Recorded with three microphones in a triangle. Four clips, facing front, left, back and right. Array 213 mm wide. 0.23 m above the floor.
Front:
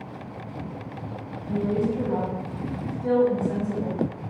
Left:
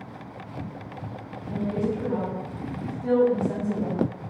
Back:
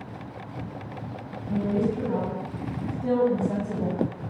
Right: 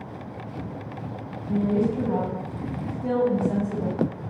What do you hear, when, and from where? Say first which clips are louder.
1.5 s a woman speaking: right 4 dB, front 1 dB; 65° right, 1.9 m; by 4.0 s straight behind, 1.5 m